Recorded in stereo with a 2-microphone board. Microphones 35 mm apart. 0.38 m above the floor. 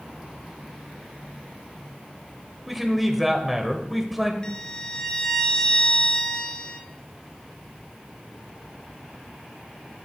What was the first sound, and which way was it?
A man speaking, 5° right (ahead or behind).